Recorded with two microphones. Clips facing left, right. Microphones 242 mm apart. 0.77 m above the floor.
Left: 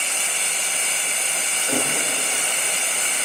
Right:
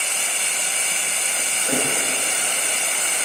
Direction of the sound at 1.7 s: 25° right (ahead or behind).